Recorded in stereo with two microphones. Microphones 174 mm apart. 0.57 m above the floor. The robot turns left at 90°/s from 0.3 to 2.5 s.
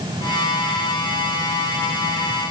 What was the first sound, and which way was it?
Only background noise.